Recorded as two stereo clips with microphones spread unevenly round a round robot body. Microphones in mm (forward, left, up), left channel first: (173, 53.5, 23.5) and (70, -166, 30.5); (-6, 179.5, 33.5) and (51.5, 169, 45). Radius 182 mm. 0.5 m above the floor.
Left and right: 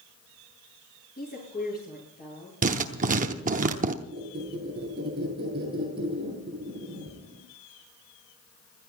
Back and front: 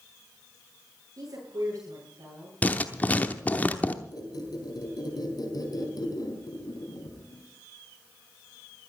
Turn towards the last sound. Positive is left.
turn(degrees=170)